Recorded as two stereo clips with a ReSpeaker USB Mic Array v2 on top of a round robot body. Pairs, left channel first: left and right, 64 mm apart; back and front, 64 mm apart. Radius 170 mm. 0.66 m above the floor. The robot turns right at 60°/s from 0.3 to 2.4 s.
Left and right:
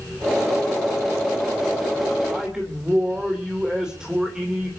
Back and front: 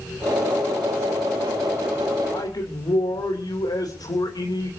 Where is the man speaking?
Straight behind, 3 m; by 4.7 s 170° right, 3 m.